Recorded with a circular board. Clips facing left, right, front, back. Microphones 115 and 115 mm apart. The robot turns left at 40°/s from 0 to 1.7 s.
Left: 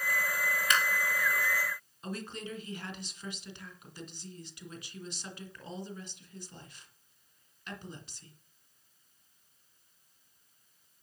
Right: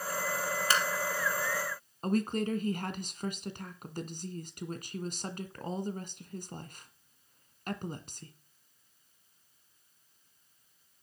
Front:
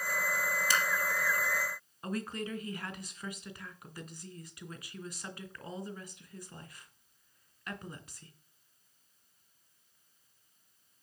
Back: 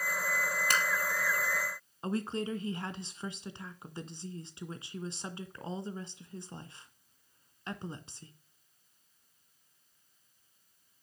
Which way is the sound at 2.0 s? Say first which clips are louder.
Right 10 dB, back 3 dB; 120° right.